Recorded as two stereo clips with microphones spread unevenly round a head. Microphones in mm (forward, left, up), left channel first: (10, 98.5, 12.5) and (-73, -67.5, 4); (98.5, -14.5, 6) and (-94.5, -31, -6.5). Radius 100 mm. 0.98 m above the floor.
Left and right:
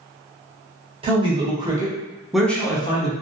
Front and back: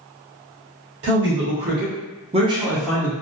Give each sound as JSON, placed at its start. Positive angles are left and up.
{"t": 1.0, "sound": "a man speaking", "azimuth_deg": -175, "distance_m": 1.2}